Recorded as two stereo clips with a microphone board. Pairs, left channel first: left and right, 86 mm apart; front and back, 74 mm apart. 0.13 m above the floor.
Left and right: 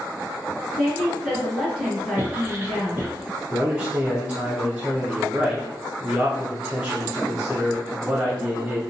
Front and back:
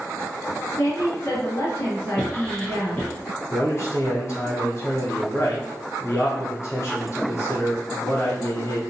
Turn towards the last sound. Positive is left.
turn(degrees=-15)